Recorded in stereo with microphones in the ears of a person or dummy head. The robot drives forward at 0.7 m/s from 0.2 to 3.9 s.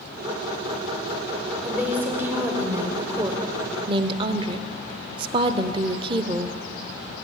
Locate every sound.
1.6 s a woman speaking: 10° right (ahead or behind), 2 m; by 6.6 s 30° right (ahead or behind), 0.7 m